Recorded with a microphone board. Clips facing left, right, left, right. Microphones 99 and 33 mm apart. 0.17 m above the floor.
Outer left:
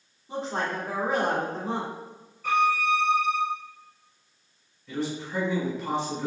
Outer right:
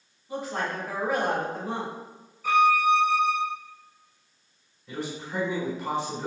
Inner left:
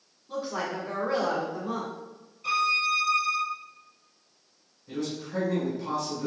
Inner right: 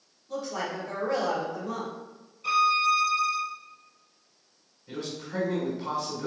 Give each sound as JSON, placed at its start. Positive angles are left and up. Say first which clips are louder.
{"t": 0.3, "sound": "a woman speaking", "louder": "outer left 1 dB, inner left 1 dB", "side_deg": 25, "distance_m": 1.3}
{"t": 2.4, "sound": "a violin", "louder": "outer right 3 dB, inner right 2 dB", "side_deg": -5, "distance_m": 1.1}
{"t": 4.9, "sound": "a man speaking", "louder": "outer left 3 dB, inner left 2 dB", "side_deg": -20, "distance_m": 1.4}